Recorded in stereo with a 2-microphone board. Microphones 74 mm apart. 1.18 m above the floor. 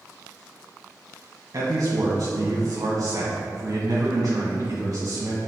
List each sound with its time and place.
1.5 s a man speaking: 55° right (ahead or behind), 1.2 m